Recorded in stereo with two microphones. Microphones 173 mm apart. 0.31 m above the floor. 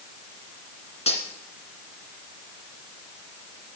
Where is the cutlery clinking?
35° left (ahead or behind), 2 m.